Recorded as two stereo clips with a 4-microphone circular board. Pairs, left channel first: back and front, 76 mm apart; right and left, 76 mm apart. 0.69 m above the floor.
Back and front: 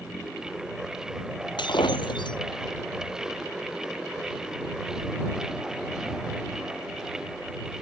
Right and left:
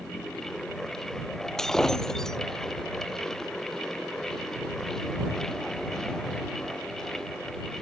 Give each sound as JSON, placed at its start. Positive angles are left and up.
{"t": 1.6, "sound": "breaking glass", "azimuth_deg": -175}